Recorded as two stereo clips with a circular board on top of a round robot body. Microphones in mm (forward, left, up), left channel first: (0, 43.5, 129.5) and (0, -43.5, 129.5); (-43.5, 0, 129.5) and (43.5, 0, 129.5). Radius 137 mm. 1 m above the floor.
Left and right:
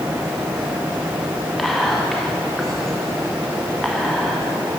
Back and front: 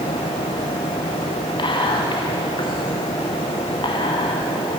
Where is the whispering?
175° left, 0.8 m.